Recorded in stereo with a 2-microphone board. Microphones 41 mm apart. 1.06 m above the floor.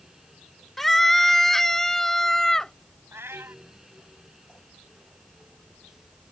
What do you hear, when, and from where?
0.8 s a scream: 5° left (ahead or behind); by 2.7 s 10° left (ahead or behind)
3.1 s a cat meowing: 75° right (ahead or behind)